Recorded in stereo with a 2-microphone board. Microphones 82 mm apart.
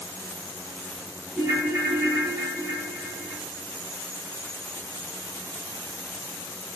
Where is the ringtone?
30° right (ahead or behind), 1.0 m.